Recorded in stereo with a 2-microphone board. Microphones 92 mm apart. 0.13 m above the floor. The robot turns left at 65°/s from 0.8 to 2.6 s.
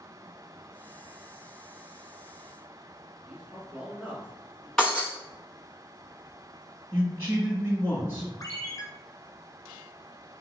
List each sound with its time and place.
3.2 s a man speaking: 15° right (ahead or behind), 1.1 m
4.8 s breaking glass: 5° left (ahead or behind), 1.2 m
6.9 s a man speaking: 25° right (ahead or behind), 1.7 m
8.4 s a ringtone: 40° left (ahead or behind), 0.9 m